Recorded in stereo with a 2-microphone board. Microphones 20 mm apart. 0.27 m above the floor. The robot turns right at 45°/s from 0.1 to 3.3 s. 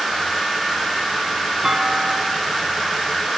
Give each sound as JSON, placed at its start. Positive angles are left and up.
{"t": 1.6, "sound": "a clunk", "azimuth_deg": -140, "distance_m": 1.5}